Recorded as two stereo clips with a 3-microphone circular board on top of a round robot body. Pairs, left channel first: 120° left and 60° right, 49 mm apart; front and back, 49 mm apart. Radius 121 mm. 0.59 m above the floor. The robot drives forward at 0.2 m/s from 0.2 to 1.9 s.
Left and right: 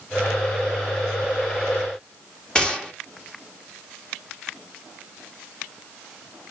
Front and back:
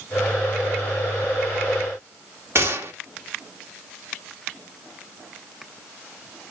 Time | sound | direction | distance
2.5 | a gunshot | 170° right | 1.6 m